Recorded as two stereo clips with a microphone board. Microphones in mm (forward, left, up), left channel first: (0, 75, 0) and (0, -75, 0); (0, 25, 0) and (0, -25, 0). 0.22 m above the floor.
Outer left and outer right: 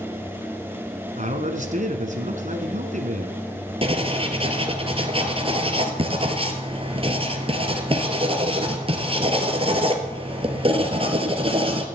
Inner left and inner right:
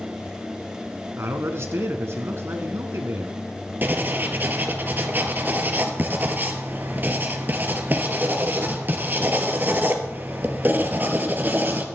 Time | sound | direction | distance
1.2 | a man speaking | 55° right (ahead or behind) | 2 m
3.8 | writing | 40° right (ahead or behind) | 1.8 m